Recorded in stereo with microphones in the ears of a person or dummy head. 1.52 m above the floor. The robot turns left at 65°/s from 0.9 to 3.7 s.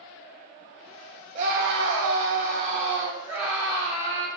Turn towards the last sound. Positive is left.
turn(degrees=165)